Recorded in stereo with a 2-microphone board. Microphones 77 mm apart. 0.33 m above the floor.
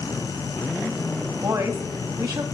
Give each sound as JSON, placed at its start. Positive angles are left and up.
{"t": 1.4, "sound": "a woman speaking", "side_deg": -50, "distance_m": 1.7}